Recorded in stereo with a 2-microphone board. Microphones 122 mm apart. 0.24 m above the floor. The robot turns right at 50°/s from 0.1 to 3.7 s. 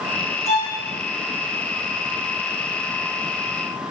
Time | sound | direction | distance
0.5 | a violin | 30° right (ahead or behind) | 0.7 m